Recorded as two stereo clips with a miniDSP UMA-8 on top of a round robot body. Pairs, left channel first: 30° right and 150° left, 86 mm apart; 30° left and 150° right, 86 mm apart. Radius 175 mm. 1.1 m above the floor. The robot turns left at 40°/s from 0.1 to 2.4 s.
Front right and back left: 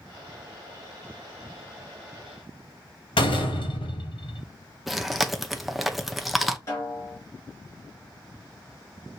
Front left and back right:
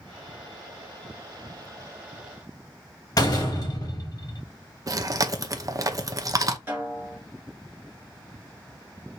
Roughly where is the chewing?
Behind right.